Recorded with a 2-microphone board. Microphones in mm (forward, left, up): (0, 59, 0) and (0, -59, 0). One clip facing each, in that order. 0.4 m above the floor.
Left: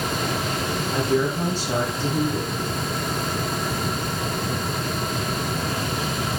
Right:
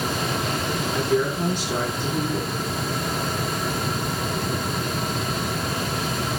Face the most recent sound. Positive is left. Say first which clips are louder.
# left 1 dB
turn(degrees=35)  # may be behind; listen again after turning